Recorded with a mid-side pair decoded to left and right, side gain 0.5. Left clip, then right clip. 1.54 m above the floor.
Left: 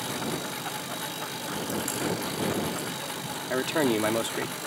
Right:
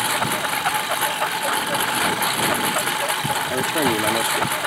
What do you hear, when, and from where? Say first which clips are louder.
0.0 s a lawn mower: right 11 dB; 65° right
3.5 s a man speaking: right 2 dB; 5° right